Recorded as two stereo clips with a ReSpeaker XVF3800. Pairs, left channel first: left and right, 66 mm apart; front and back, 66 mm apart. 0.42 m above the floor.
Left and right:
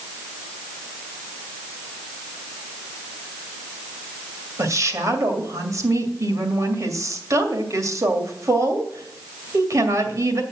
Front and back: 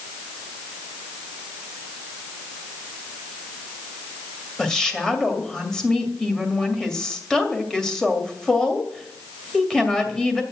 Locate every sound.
4.6 s a woman speaking: 80° right, 2 m